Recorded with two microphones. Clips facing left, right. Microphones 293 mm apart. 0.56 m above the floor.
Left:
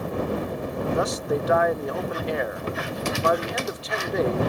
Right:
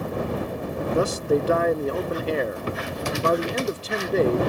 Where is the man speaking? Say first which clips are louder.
Right 6 dB; 35° right (ahead or behind).